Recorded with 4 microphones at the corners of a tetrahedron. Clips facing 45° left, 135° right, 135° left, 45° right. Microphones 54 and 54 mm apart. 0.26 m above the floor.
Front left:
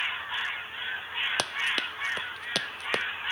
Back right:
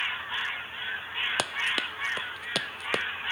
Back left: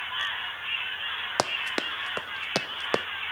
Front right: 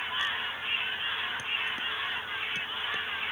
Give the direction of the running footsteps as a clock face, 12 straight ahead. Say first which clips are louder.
Even, back left 5 dB; 7 o'clock.